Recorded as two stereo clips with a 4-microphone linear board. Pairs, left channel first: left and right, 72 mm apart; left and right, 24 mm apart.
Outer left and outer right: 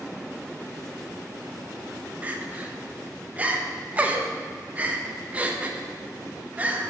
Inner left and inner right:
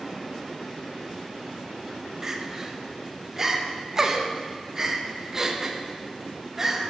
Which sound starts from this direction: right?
Crying, at 2.2 s.